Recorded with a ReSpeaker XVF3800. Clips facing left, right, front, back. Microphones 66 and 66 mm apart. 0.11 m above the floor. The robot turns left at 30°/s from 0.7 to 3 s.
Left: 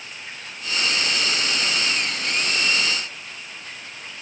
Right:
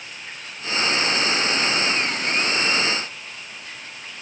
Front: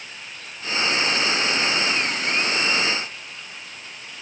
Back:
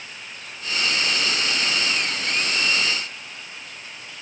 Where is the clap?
I don't hear a clap.